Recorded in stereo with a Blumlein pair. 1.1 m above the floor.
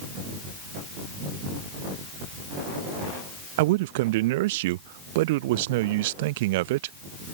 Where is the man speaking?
50° right.